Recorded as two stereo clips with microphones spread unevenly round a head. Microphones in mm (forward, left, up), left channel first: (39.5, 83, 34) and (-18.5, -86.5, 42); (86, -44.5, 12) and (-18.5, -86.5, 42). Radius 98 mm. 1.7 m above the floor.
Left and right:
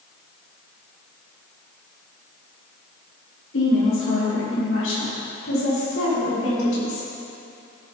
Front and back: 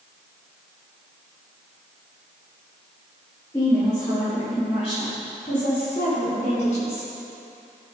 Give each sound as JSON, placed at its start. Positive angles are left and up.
{"t": 3.5, "sound": "a woman speaking", "azimuth_deg": 95, "distance_m": 4.0}